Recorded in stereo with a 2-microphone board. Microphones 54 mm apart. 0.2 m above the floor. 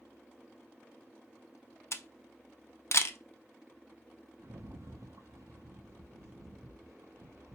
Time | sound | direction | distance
1.9 | a camera shutter | 55° left (ahead or behind) | 0.5 m
4.4 | a rattle | 80° right | 1.1 m